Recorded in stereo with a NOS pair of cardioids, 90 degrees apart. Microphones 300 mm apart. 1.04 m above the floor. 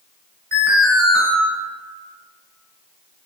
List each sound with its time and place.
0.5 s an alarm: 50° right, 1.6 m